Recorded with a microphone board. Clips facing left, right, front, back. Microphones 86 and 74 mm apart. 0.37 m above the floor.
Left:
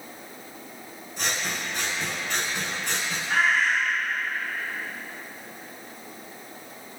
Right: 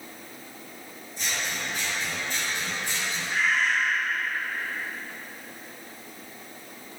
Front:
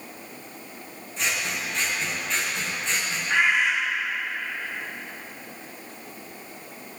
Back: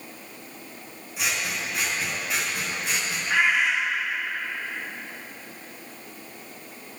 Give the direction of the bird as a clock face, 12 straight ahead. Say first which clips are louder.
Left 3 dB, even; 9 o'clock.